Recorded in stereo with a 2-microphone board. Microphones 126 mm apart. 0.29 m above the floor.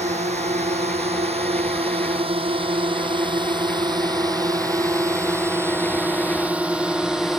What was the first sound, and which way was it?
A drone, 60° right (ahead or behind).